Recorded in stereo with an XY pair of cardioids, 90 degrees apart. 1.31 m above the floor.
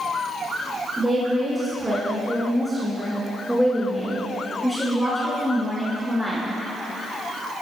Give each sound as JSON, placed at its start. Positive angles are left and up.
{"t": 1.0, "sound": "a woman speaking", "azimuth_deg": -15, "distance_m": 5.0}